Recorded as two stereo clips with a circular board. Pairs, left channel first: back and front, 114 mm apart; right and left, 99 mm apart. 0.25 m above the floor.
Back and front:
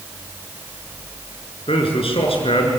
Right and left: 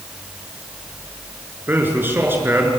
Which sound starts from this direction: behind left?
A man speaking, at 1.7 s.